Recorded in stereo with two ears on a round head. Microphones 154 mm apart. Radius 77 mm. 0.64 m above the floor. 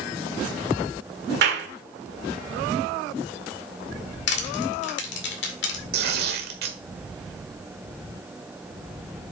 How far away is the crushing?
About 2 m.